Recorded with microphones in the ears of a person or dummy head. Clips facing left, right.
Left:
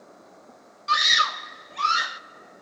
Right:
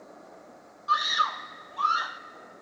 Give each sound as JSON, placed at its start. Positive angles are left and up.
{"t": 0.9, "sound": "a scream", "side_deg": 35, "distance_m": 0.7}